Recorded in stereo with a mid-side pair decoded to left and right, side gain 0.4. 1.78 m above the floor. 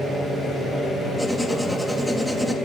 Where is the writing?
Straight ahead, 4 m.